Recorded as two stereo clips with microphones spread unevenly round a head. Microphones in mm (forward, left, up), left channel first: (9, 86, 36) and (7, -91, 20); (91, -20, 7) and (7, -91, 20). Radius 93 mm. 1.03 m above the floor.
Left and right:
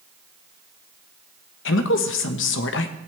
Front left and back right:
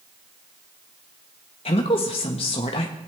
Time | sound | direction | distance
1.6 | a woman speaking | 85° left | 1.1 m